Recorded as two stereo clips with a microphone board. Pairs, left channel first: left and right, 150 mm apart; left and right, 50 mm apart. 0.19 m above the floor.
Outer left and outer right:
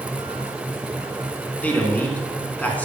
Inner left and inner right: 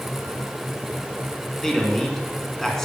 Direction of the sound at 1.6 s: 10° left (ahead or behind).